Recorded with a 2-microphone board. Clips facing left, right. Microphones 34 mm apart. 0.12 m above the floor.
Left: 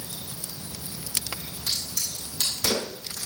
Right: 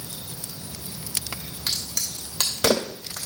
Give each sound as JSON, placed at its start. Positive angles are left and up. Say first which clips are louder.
{"t": 1.7, "sound": "a crack", "louder": "right 2 dB", "side_deg": -75, "distance_m": 2.5}